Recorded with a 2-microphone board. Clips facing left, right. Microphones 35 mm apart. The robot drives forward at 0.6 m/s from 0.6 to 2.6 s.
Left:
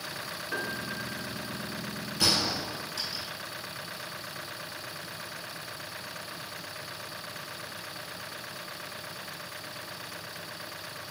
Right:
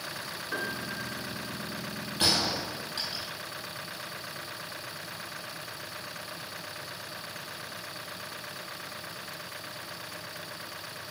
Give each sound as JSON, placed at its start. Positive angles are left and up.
{"t": 0.5, "sound": "a piano", "side_deg": -10, "distance_m": 1.3}
{"t": 2.2, "sound": "a gunshot", "side_deg": -45, "distance_m": 3.5}